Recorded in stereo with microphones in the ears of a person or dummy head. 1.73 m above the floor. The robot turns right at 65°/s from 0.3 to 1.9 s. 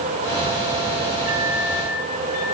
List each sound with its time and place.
1.3 s a microwave: 5° left, 8.5 m; by 2.5 s 45° left, 8.5 m